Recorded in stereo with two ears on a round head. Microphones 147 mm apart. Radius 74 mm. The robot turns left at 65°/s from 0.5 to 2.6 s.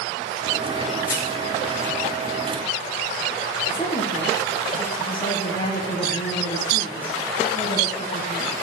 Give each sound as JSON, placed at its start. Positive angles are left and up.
{"t": 1.1, "sound": "crushing", "side_deg": 25, "distance_m": 1.2}
{"t": 3.7, "sound": "a woman speaking", "side_deg": 30, "distance_m": 1.6}